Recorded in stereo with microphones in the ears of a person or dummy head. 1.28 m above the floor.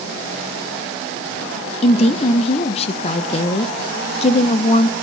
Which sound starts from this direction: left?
A woman speaking, at 1.8 s.